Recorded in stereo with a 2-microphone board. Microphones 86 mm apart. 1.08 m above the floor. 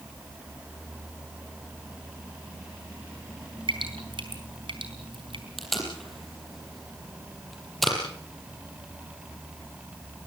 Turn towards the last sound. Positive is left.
turn(degrees=0)  # may be behind; listen again after turning